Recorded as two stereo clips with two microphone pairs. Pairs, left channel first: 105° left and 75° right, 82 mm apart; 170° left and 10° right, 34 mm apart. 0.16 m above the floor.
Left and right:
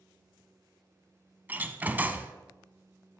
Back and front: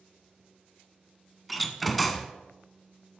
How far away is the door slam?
About 0.8 m.